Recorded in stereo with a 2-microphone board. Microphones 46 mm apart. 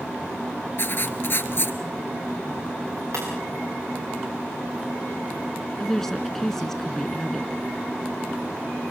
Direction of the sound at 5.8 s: 10° left (ahead or behind).